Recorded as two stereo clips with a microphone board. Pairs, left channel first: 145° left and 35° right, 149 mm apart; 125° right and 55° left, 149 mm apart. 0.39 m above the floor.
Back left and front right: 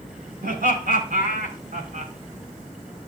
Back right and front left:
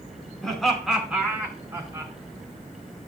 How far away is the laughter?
About 3.5 m.